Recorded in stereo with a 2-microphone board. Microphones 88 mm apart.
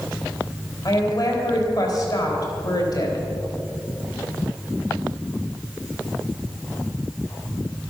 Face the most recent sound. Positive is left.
turn(degrees=45)  # may be behind; listen again after turning